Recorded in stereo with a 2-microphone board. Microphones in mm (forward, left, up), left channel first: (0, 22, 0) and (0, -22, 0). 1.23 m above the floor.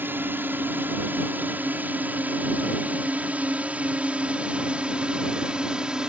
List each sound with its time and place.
0.0 s a drone: 45° right (ahead or behind); by 6.1 s 15° right (ahead or behind)